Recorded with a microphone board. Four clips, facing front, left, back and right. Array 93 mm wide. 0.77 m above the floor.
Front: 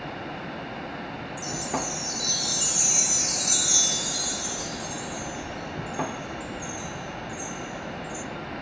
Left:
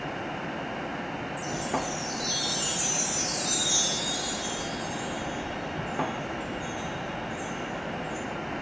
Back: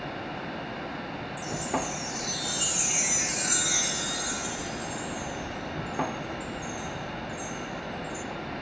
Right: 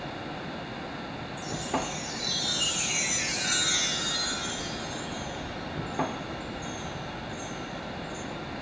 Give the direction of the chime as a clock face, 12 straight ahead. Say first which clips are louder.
Even, even; 4 o'clock.